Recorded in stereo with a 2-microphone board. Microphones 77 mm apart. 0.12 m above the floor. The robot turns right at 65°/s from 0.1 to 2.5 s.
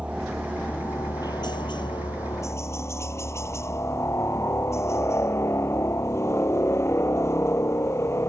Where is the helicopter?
15° right; by 8.3 s 145° left.